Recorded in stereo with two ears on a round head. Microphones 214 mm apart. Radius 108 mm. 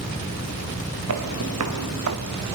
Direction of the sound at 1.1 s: 75° right (ahead or behind).